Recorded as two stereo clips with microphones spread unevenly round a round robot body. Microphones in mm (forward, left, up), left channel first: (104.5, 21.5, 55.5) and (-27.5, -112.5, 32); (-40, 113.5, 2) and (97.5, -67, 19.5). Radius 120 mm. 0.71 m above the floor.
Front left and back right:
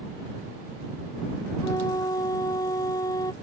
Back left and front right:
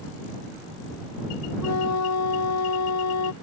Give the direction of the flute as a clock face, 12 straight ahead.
8 o'clock.